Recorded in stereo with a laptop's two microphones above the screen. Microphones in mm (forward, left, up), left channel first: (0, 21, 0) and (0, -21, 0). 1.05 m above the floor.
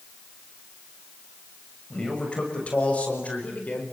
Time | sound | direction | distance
1.9 | a man speaking | 25° left (ahead or behind) | 7 m